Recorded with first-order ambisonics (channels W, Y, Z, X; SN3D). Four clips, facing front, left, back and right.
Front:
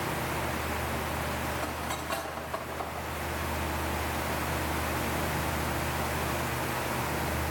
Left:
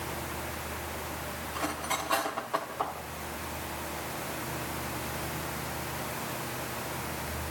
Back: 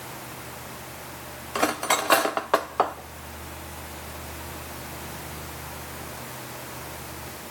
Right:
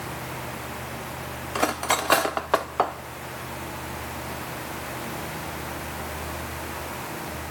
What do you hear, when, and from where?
1.6 s cutlery clinking: 135° right, 1.0 m